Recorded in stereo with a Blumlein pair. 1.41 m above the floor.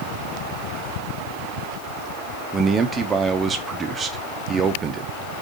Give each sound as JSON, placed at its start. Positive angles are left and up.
{"t": 2.5, "sound": "a man speaking", "azimuth_deg": -20, "distance_m": 1.4}